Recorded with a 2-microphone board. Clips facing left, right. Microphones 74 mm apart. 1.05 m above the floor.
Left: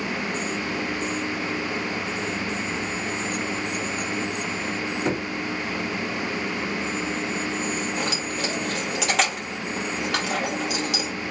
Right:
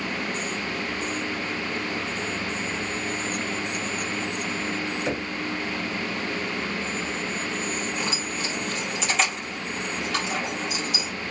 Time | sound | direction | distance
5.0 | knocking | 70° left (ahead or behind) | 2 m
8.0 | keys jangling | 75° left (ahead or behind) | 2.5 m